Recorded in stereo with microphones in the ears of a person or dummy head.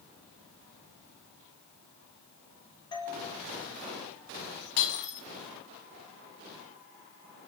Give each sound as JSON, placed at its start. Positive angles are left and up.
{"t": 2.9, "sound": "a doorbell", "side_deg": 25, "distance_m": 7.0}
{"t": 4.8, "sound": "breaking glass", "side_deg": 60, "distance_m": 6.0}